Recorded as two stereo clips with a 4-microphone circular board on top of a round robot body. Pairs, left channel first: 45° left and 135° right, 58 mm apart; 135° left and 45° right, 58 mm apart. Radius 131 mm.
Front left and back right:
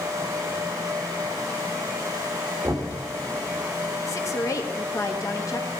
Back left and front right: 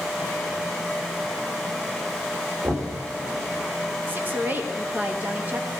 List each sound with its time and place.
2.6 s knocking: 85° right, 2 m
4.1 s a woman speaking: 15° left, 1.3 m